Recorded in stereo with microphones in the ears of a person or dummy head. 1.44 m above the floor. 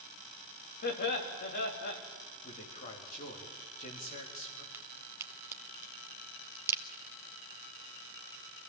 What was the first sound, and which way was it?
Laughter, 50° left (ahead or behind).